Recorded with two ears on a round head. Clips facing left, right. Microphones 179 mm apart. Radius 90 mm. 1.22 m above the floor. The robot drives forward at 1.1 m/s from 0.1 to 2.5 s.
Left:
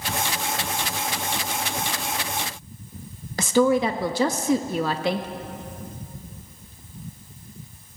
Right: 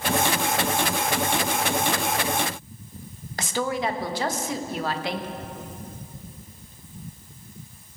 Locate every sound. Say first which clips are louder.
3.4 s a woman speaking: left 8 dB; 80° left, 1.6 m